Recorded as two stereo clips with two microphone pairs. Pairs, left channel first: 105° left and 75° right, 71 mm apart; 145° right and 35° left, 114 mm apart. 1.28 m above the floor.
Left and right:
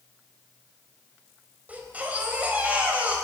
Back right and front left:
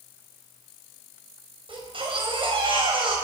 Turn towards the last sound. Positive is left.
turn(degrees=-5)